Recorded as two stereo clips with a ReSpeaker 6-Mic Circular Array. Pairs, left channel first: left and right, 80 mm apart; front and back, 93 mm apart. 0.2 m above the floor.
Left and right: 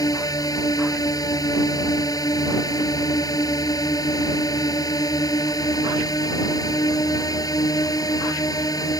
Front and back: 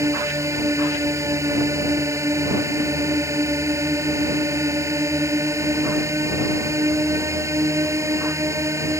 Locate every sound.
0.0 s a drone: 125° left